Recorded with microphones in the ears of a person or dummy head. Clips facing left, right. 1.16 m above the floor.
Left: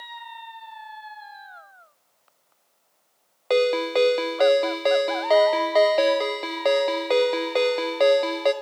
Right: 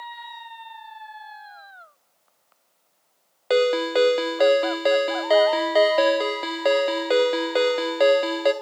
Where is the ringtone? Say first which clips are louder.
Right 1 dB; 5° right (ahead or behind), 0.7 m.